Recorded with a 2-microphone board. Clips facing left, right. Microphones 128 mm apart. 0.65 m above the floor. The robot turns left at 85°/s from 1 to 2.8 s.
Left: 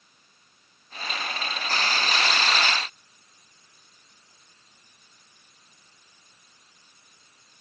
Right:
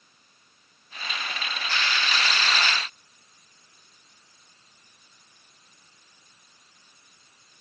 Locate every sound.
Only background noise.